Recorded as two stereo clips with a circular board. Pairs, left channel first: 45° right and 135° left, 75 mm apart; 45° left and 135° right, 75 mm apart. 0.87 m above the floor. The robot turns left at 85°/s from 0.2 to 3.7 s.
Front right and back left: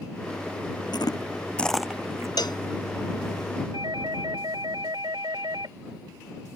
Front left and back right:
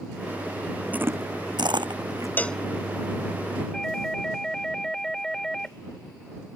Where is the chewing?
65° right; by 2.3 s straight behind.